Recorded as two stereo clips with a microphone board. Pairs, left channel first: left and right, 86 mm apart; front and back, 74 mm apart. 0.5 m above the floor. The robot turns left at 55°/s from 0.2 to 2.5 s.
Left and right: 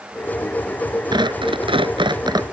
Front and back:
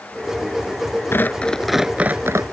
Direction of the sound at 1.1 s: 60° right.